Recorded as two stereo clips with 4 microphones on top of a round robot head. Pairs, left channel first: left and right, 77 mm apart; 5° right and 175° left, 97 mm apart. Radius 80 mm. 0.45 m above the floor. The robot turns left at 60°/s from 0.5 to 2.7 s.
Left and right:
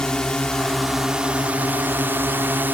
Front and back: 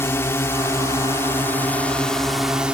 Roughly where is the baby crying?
I don't hear a baby crying.